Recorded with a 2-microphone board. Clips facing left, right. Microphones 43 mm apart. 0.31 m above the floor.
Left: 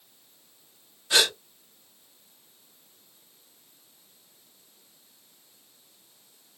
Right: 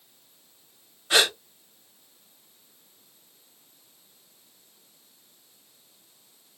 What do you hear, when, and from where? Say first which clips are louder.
1.1 s a gasp: right 2 dB; 30° right (ahead or behind), 1.2 m